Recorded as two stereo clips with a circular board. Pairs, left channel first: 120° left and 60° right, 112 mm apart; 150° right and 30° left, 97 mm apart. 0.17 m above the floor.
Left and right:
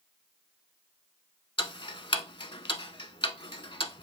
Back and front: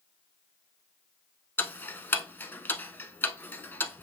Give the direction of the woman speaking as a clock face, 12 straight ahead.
No woman speaking in this recording.